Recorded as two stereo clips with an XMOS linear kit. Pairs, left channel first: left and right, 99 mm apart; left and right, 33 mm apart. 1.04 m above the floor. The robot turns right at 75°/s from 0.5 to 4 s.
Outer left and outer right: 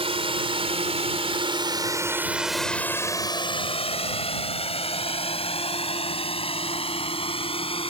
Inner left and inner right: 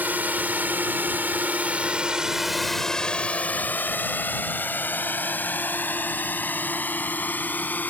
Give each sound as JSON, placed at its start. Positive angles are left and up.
{"t": 0.0, "sound": "a drone", "side_deg": -75}